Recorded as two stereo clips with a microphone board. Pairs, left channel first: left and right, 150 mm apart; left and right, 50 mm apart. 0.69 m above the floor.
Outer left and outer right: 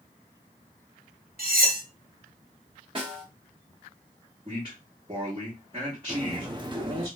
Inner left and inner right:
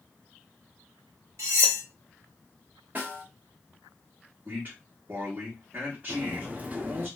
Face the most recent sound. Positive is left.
turn(degrees=-30)  # may be behind; listen again after turning